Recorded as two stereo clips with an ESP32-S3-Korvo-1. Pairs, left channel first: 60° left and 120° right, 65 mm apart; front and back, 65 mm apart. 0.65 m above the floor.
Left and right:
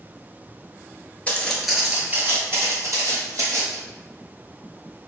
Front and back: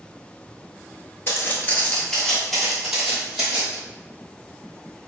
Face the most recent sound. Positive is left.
turn(degrees=-105)